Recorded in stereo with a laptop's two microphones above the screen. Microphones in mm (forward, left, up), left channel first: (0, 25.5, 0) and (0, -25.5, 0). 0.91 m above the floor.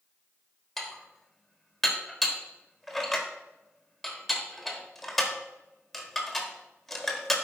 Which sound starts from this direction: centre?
Dishes clattering, at 0.8 s.